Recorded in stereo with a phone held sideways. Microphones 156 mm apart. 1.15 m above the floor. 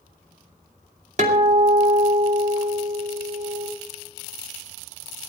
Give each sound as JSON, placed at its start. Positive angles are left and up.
{"t": 1.2, "sound": "a guitar", "side_deg": -50, "distance_m": 2.5}